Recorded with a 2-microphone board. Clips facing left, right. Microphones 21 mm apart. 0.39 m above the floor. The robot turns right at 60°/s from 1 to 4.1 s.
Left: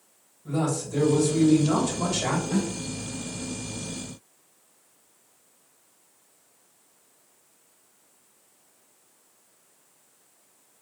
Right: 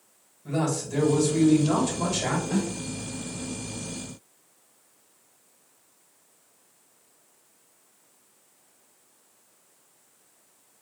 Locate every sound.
0.5 s a man speaking: 50° right, 1.7 m; by 2.4 s 35° left, 1.7 m
2.5 s a snare drum: 30° right (ahead or behind), 1.9 m; by 2.8 s 35° right (ahead or behind), 1.9 m